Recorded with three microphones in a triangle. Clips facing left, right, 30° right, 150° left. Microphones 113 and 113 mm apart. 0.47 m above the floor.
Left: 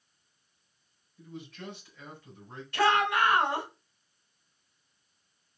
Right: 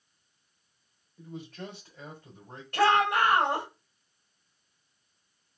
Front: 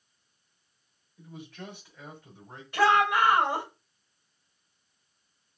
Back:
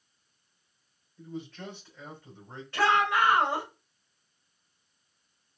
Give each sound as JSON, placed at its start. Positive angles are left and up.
{"t": 1.2, "sound": "a man speaking", "azimuth_deg": -105, "distance_m": 3.0}
{"t": 2.7, "sound": "a shout", "azimuth_deg": -105, "distance_m": 2.5}